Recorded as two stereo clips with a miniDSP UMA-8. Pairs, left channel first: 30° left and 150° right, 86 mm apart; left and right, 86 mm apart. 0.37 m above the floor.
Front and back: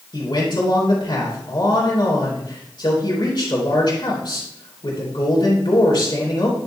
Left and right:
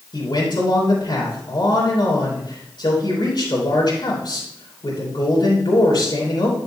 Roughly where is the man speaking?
Ahead left.